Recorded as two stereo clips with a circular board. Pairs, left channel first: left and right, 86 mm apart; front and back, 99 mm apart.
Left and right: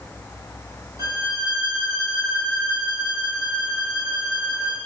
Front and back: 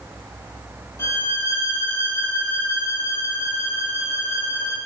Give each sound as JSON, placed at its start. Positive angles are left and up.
{"t": 1.0, "sound": "a violin", "azimuth_deg": -60, "distance_m": 3.5}